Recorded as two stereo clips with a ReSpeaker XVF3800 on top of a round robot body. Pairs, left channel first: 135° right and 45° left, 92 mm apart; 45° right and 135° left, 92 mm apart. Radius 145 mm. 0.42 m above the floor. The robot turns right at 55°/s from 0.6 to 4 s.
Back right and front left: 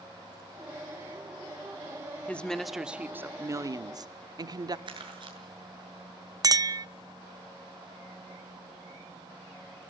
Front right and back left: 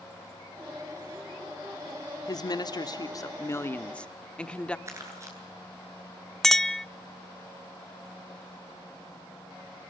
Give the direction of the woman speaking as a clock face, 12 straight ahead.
2 o'clock.